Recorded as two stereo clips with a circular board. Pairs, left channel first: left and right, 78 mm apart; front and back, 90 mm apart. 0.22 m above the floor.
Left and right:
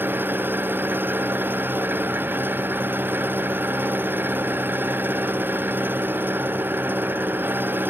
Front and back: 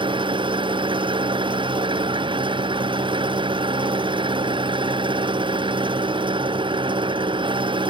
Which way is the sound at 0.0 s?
155° right.